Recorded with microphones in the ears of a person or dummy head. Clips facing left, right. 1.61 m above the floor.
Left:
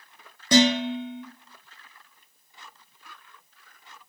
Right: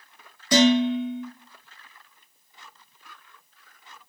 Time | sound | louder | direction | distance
0.5 | dishes clattering | right 2 dB | 15° left (ahead or behind) | 0.8 m